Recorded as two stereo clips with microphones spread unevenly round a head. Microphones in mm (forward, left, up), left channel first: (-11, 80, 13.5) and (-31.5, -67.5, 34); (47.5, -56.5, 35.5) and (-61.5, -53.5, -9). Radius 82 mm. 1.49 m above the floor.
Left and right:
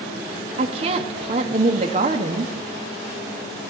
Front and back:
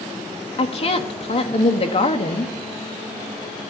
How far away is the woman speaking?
About 1.0 m.